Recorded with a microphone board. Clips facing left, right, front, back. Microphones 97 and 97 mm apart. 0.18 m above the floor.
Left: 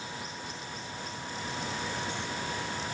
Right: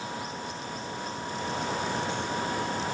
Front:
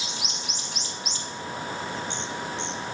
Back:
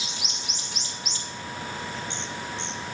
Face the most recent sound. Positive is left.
No sound to turn to.